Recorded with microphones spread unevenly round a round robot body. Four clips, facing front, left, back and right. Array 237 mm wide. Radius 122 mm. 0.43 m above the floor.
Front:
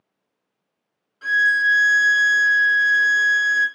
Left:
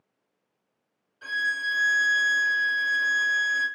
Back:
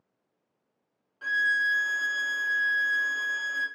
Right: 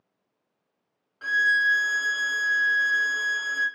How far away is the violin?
About 1.5 m.